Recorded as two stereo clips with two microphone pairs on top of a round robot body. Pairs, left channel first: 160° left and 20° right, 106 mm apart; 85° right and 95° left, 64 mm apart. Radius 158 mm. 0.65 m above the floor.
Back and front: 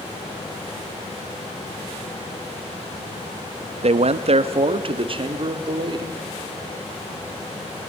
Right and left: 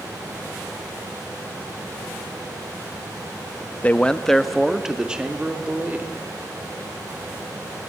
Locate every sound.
3.8 s a man speaking: 25° right, 0.9 m; by 6.2 s 25° left, 2 m